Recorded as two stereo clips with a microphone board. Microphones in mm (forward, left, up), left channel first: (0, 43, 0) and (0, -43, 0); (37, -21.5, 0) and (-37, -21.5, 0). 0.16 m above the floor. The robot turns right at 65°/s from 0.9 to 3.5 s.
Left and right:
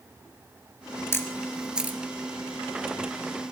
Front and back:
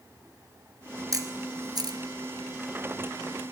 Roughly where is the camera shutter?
Behind left.